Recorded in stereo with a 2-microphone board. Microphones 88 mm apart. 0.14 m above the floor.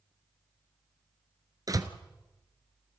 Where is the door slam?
45° right (ahead or behind), 1.3 m.